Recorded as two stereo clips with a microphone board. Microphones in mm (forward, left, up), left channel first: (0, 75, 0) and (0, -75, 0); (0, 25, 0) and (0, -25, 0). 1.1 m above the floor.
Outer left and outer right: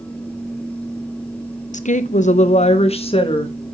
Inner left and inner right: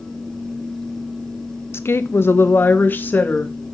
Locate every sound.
1.7 s a woman speaking: 55° left (ahead or behind), 0.8 m; by 3.5 s 35° left (ahead or behind), 1.8 m